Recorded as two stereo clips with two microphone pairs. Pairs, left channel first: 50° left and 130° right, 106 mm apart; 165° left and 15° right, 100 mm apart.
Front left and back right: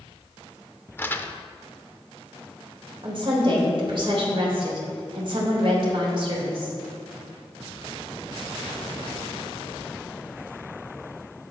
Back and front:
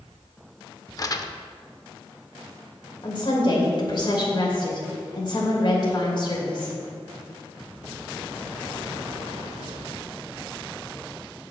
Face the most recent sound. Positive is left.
turn(degrees=-165)